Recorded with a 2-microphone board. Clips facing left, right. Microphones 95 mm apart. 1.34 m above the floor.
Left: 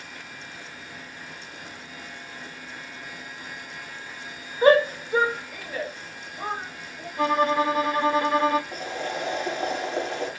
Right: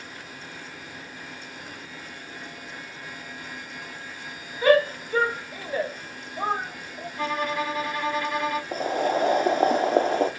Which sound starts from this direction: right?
Boiling, at 8.7 s.